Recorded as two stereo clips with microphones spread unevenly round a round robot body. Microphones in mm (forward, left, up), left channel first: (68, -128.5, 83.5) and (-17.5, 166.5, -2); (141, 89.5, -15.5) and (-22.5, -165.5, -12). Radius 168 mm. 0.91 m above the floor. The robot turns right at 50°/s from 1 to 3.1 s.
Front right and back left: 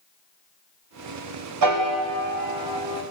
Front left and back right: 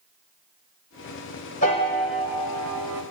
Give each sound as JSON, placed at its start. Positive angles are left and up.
{"t": 1.6, "sound": "a piano", "azimuth_deg": 125, "distance_m": 3.0}